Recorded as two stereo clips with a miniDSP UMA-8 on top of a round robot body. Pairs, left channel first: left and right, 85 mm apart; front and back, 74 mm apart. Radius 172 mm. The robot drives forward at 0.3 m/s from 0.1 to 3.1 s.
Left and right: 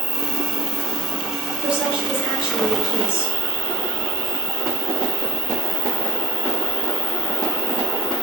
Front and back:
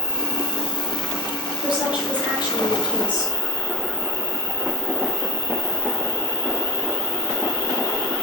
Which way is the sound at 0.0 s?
155° right.